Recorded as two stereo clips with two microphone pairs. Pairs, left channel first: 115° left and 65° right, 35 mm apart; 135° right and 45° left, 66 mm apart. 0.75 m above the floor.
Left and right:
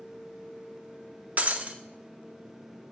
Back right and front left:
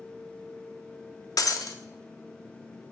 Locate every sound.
1.4 s breaking glass: 105° right, 0.6 m